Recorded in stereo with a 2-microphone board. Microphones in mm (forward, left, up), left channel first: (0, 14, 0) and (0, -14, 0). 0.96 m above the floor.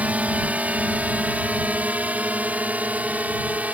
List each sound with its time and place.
0.0 s a drone: 60° right (ahead or behind); by 3.8 s 65° right (ahead or behind)